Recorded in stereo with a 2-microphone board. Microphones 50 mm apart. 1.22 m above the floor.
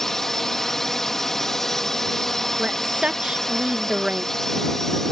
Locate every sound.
0.0 s a drone: 10° left (ahead or behind)
2.6 s a woman speaking: 20° right (ahead or behind)